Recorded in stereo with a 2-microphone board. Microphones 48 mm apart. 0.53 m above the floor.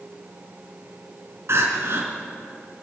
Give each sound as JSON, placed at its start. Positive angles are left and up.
{"t": 1.5, "sound": "crying", "side_deg": -65, "distance_m": 4.5}